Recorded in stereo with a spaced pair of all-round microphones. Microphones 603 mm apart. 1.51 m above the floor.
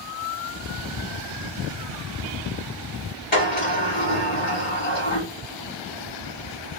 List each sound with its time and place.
3.3 s a sliding door: 15° left (ahead or behind), 2.0 m